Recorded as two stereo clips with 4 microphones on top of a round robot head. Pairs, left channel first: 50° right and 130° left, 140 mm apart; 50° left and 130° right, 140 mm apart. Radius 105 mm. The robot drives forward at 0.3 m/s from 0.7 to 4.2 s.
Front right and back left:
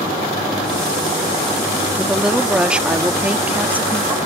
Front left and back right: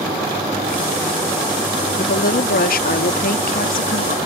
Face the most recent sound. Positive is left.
turn(degrees=55)